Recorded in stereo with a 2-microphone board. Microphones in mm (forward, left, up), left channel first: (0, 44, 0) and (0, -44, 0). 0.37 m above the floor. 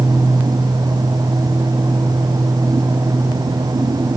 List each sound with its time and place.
Only background noise.